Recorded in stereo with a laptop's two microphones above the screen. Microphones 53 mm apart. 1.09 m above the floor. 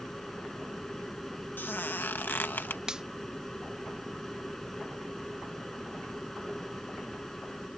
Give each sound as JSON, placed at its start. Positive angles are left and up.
{"t": 0.0, "sound": "a machine running", "side_deg": 5}
{"t": 1.6, "sound": "a squeak", "side_deg": 35}
{"t": 2.9, "sound": "a finger snap", "side_deg": -15}